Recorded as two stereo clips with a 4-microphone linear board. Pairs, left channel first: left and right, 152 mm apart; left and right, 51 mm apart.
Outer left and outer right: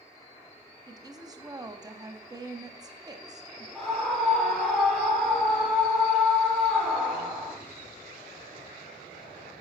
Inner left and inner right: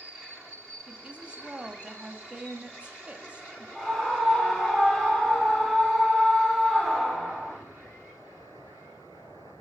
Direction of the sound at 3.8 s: 5° left (ahead or behind).